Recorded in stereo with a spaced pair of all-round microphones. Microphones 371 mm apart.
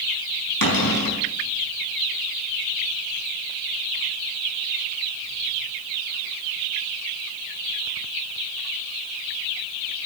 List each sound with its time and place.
0.6 s a cupboard door: 65° left (ahead or behind), 5 m